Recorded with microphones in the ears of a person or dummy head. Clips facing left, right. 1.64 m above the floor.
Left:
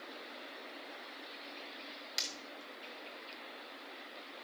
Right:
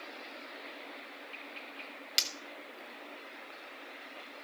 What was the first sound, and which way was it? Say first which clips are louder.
Breaking glass: right 2 dB; 45° right (ahead or behind).